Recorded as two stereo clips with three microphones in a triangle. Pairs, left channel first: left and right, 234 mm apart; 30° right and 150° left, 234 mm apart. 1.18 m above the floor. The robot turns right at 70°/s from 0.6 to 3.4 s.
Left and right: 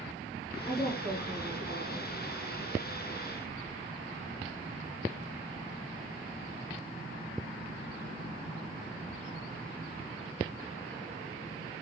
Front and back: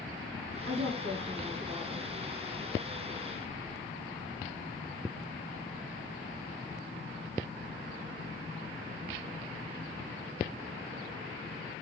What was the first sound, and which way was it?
A woman speaking, 145° left.